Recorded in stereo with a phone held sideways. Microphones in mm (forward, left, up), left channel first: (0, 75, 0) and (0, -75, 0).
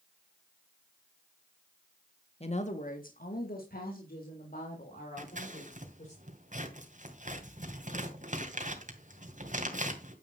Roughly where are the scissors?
Right.